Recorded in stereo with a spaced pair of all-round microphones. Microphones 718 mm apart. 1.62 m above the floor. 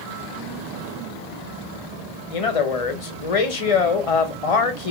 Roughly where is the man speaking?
Left.